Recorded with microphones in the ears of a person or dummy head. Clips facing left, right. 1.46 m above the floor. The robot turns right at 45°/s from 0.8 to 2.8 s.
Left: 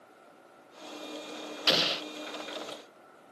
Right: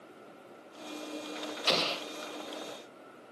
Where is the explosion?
10° left (ahead or behind); by 2.0 s 25° left (ahead or behind).